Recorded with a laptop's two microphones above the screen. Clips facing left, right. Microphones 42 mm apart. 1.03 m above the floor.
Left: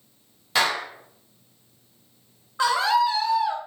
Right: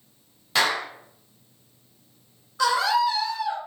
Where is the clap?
Centre (ahead or behind), 0.7 m.